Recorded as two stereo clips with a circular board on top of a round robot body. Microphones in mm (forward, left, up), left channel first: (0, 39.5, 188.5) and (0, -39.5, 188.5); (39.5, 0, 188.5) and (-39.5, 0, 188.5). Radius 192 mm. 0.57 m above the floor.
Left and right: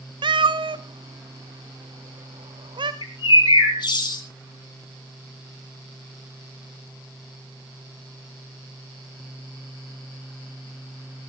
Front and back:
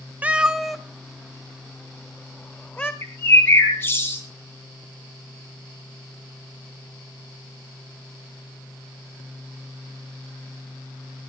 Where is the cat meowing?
110° right, 0.6 m; by 2.9 s 70° right, 2 m.